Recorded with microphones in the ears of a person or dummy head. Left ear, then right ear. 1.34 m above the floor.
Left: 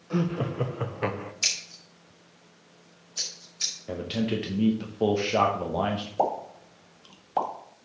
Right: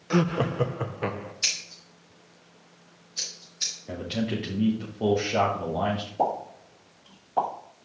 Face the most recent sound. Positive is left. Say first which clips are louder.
# even
turn(degrees=80)